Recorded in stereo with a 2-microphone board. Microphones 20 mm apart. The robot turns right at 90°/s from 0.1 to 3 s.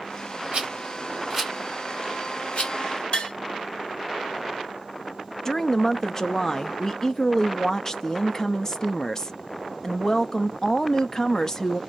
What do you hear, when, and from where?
0.5 s a rattle: 65° right (ahead or behind), 2 m; by 2.7 s 55° left (ahead or behind), 2 m
3.1 s tapping: 45° left (ahead or behind), 1.8 m
5.5 s a woman speaking: 25° left (ahead or behind), 0.5 m